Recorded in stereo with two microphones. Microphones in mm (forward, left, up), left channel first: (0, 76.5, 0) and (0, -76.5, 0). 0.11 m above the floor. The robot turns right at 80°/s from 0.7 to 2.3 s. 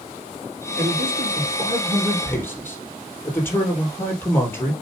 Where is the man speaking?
105° right, 3.5 m; by 4.7 s 15° left, 3.5 m.